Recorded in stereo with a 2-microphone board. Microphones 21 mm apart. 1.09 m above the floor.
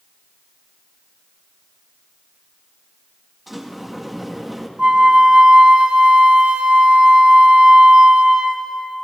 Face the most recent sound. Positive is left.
turn(degrees=-45)  # may be behind; listen again after turning